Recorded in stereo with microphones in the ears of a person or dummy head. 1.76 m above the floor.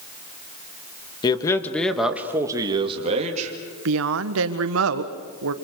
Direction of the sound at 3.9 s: 80° right.